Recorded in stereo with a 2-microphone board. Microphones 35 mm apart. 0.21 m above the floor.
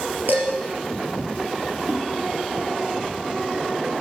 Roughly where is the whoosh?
Right.